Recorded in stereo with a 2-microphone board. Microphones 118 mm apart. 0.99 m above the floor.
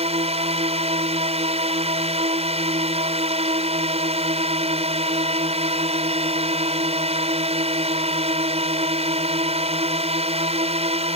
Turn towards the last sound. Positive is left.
turn(degrees=-60)  # may be behind; listen again after turning